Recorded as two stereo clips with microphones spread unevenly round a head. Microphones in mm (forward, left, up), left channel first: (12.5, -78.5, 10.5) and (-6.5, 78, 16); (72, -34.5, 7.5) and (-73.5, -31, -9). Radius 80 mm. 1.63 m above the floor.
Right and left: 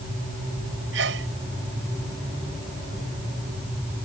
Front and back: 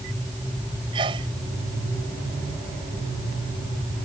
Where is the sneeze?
115° left.